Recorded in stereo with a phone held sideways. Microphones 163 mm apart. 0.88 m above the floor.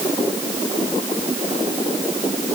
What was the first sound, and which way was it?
Only background noise.